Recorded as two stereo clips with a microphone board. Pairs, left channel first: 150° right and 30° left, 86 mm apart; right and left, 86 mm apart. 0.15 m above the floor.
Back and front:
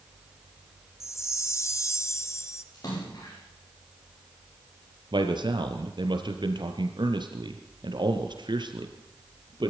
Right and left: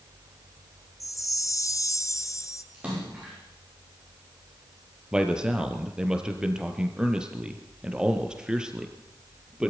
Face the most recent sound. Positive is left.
turn(degrees=10)